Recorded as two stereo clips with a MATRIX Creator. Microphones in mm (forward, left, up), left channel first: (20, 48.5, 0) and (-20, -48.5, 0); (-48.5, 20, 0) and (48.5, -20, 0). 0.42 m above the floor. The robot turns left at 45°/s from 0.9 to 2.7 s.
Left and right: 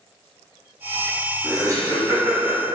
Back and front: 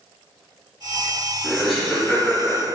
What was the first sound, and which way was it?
Laughter, 100° right.